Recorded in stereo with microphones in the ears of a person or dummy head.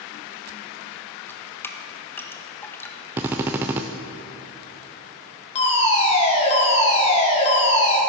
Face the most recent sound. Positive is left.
turn(degrees=35)  # may be behind; listen again after turning